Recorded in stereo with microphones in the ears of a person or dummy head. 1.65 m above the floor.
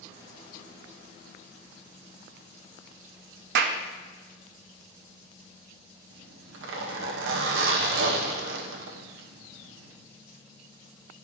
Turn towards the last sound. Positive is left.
turn(degrees=-85)